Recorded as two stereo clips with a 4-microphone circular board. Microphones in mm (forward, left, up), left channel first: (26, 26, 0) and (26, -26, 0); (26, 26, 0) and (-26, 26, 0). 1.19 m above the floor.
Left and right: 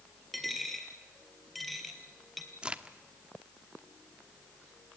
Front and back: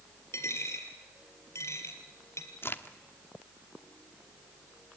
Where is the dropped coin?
5° left, 2.5 m.